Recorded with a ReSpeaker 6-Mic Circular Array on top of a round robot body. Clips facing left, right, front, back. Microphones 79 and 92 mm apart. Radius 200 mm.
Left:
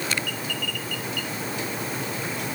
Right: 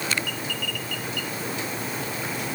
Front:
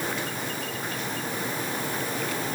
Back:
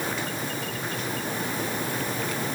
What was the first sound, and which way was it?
Only background noise.